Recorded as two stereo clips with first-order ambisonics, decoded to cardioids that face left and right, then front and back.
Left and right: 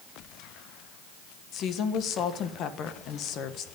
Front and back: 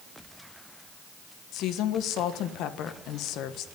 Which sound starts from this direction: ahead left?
A woman speaking, at 1.5 s.